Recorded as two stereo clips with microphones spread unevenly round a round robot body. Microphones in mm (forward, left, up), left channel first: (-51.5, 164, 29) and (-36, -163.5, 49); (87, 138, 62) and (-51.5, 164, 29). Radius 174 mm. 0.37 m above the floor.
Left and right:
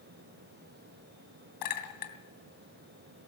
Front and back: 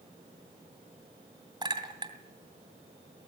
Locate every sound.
1.6 s a clink: 115° left, 2.5 m